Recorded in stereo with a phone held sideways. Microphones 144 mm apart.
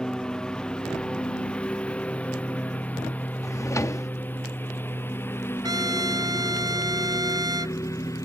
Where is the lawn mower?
5° left (ahead or behind); by 8.3 s 20° left (ahead or behind).